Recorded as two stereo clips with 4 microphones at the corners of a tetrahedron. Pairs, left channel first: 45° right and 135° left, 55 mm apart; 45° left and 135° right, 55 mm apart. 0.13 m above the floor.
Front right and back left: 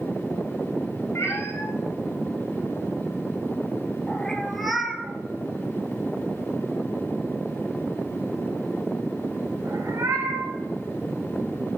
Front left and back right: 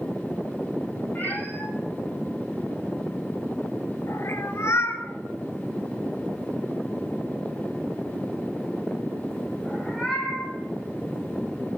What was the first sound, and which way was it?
A cat meowing, 10° right.